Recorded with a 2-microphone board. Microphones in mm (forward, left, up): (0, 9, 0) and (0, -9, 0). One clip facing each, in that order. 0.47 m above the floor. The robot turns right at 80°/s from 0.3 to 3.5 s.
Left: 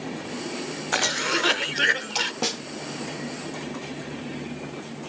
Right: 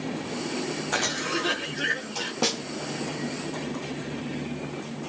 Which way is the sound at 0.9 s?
25° left.